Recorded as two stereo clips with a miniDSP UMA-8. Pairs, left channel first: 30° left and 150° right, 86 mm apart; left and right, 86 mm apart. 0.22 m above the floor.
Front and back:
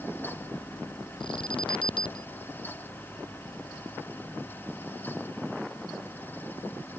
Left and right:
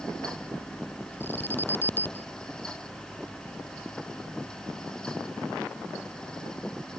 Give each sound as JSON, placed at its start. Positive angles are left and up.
{"t": 1.2, "sound": "an alarm", "azimuth_deg": 25}